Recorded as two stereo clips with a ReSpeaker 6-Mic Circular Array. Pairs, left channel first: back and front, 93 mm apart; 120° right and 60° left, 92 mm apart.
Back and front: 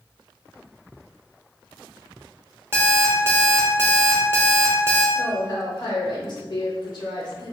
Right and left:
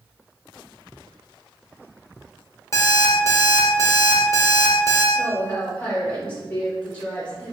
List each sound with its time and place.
2.7 s an alarm clock: 65° right, 0.6 m
5.2 s a woman speaking: 170° left, 0.8 m